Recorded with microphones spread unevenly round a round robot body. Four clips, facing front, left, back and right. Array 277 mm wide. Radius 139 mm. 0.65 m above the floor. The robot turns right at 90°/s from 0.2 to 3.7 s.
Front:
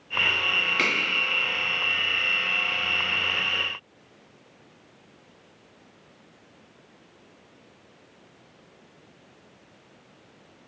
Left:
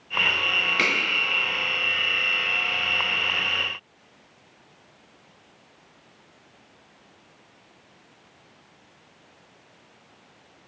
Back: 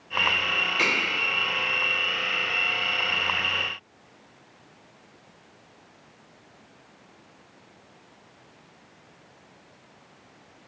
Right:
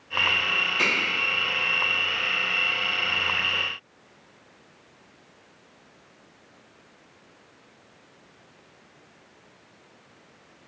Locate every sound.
0.8 s a finger snap: 75° left, 1.7 m; by 0.9 s 85° left, 1.7 m